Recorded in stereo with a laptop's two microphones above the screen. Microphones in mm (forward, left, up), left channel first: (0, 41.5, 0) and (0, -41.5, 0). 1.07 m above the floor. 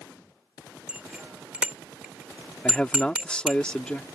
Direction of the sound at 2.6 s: 10° left (ahead or behind).